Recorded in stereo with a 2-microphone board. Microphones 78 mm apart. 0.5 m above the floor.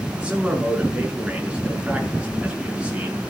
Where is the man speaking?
15° right (ahead or behind), 6 m.